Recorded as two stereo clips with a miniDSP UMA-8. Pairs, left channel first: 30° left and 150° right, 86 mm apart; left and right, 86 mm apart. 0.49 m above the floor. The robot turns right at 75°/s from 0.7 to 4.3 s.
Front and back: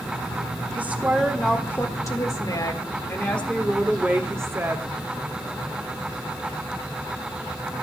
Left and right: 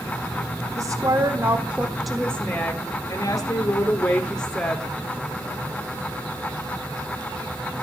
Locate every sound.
0.8 s a woman speaking: 95° right, 1.4 m; by 4.9 s 170° left, 1.4 m